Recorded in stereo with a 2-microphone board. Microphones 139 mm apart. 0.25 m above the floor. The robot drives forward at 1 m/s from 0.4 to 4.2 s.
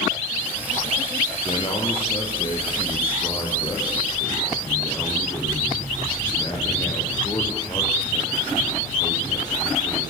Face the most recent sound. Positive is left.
turn(degrees=30)  # may be behind; listen again after turning